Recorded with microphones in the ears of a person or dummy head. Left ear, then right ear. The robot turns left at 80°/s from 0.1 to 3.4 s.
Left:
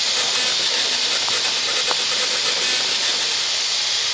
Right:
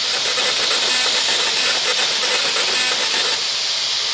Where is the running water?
30° left, 1.5 m; by 4.1 s 125° left, 1.5 m.